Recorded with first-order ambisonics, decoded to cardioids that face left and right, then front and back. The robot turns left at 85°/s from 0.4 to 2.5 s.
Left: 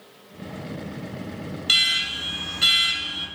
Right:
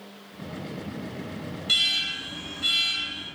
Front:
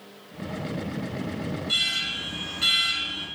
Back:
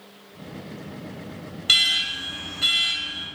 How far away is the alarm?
About 2.5 m.